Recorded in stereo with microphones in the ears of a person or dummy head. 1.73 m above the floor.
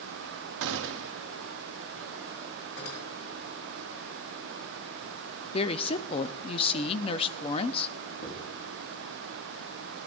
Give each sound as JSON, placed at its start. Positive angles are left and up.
{"t": 0.6, "sound": "a gunshot", "side_deg": -65, "distance_m": 0.8}
{"t": 2.8, "sound": "cutlery clinking", "side_deg": 85, "distance_m": 7.0}
{"t": 5.5, "sound": "a woman speaking", "side_deg": 35, "distance_m": 0.6}
{"t": 8.2, "sound": "writing", "side_deg": 45, "distance_m": 5.5}